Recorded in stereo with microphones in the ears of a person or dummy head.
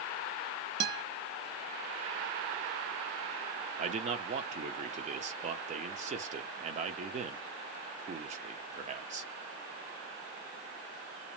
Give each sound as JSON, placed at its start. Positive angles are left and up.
{"t": 0.8, "sound": "a guitar", "side_deg": -60, "distance_m": 0.6}
{"t": 3.8, "sound": "a man speaking", "side_deg": -40, "distance_m": 0.5}